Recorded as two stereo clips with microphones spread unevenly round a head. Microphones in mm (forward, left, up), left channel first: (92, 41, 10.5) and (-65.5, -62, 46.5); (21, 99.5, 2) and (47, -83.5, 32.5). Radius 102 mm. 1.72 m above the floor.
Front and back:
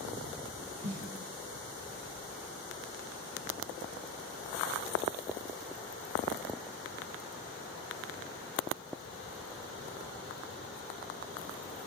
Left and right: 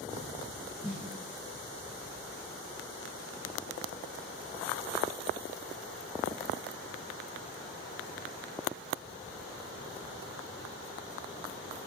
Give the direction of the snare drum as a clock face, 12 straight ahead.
6 o'clock.